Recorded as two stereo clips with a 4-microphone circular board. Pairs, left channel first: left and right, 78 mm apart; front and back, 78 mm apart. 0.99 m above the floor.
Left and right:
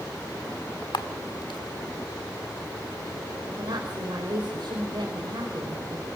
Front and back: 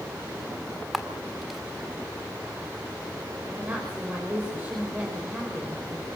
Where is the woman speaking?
115° right, 5 m.